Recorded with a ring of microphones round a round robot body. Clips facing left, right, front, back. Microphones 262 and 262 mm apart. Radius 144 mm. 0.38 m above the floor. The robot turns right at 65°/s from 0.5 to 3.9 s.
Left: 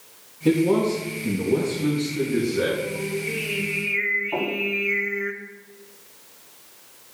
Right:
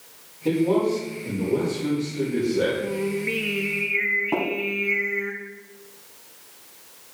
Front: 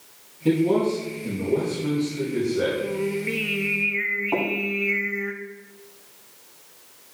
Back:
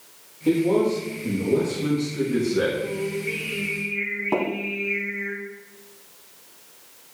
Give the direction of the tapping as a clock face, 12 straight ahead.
4 o'clock.